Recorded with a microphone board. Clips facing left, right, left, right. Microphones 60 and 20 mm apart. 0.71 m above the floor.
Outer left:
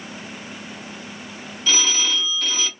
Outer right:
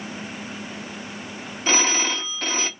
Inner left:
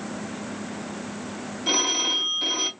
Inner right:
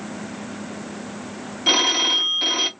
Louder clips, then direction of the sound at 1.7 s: Outer right 1 dB, inner right 5 dB; 35° right (ahead or behind).